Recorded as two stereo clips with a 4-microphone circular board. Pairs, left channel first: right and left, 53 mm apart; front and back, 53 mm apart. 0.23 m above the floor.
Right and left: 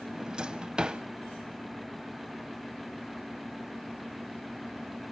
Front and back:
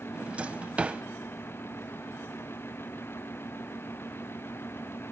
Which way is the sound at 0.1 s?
145° left.